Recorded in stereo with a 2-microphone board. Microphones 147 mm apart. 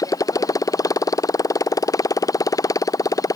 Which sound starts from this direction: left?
A motorcycle, at 0.0 s.